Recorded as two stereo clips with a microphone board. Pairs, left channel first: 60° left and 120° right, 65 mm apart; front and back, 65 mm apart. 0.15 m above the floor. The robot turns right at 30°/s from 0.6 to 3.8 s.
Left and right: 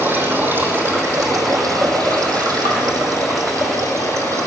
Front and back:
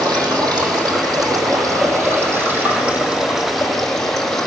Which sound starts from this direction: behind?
Running water, at 0.0 s.